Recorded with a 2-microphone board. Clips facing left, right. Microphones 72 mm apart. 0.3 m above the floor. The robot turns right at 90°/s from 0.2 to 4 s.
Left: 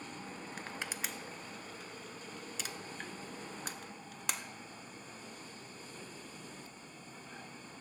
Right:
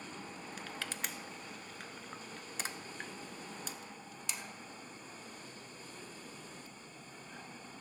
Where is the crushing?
45° left (ahead or behind), 0.5 m; by 4.4 s 80° left, 0.5 m.